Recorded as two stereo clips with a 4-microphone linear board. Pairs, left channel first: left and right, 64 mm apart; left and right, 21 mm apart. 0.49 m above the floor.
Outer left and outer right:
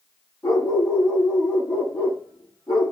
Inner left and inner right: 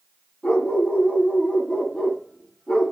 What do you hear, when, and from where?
0.4 s a dog barking: 60° left (ahead or behind), 6.5 m